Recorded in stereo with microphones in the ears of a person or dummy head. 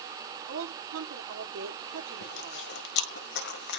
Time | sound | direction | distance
0.5 | a woman speaking | 90° right | 7.5 m
2.2 | chewing | 60° left (ahead or behind) | 1.7 m